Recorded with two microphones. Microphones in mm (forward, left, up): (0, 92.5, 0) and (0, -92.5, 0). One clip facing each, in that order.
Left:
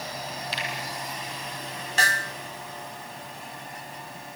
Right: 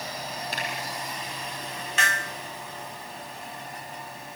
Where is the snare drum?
40° left (ahead or behind), 0.5 m.